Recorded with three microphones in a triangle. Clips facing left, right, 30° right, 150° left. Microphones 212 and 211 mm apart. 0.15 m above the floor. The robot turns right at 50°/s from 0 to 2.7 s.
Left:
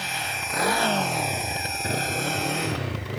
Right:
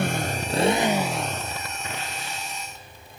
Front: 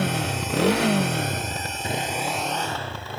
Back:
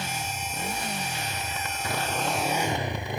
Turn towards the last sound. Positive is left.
turn(degrees=75)